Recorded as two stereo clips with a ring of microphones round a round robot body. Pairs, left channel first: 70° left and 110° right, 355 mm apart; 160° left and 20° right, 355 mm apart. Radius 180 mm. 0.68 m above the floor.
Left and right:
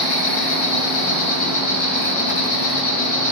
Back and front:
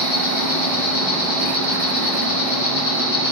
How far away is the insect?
About 4 m.